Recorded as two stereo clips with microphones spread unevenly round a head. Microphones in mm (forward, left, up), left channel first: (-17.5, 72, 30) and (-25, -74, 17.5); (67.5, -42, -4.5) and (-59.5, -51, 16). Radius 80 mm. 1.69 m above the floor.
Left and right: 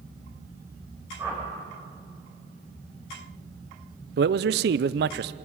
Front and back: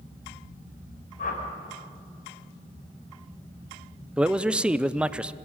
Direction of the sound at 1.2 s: 15° right.